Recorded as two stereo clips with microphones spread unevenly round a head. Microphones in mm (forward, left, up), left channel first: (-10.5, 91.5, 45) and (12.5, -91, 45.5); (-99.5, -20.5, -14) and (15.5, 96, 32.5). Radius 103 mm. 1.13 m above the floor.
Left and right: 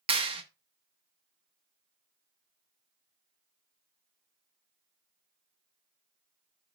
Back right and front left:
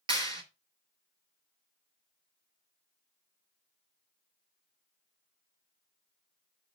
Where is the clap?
20° right, 1.2 m.